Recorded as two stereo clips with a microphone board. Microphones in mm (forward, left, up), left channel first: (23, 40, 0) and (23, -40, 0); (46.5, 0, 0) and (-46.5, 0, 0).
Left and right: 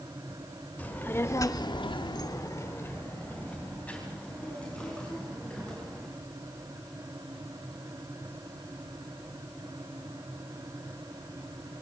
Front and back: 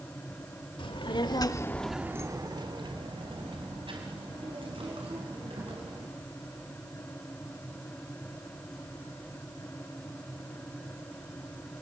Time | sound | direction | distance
0.8 | a child speaking | 20° left | 1.8 m